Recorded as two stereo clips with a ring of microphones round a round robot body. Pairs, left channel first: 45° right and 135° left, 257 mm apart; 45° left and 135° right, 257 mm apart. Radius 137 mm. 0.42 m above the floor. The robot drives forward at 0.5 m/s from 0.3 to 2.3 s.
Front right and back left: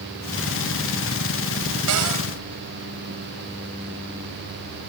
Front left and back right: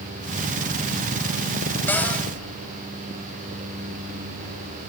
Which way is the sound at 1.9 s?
125° left.